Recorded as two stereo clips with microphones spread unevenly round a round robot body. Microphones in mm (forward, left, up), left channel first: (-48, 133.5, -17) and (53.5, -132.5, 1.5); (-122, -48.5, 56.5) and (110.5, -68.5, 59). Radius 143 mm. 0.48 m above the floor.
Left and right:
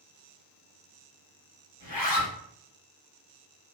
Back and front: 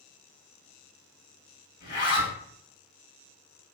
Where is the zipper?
125° left, 1.2 m.